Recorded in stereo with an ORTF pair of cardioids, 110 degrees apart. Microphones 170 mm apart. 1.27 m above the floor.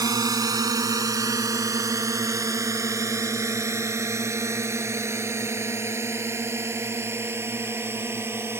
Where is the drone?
20° right; by 8.6 s 15° right.